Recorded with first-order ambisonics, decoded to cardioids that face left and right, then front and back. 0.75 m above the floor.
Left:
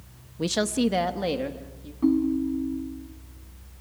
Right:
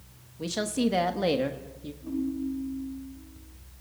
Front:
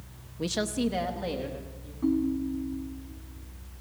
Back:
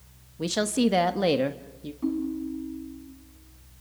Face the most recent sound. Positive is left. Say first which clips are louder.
# left 9 dB, front 2 dB
turn(degrees=90)